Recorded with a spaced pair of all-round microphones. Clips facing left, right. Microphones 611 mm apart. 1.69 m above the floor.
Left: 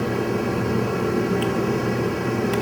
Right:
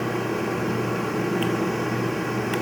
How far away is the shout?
I don't hear a shout.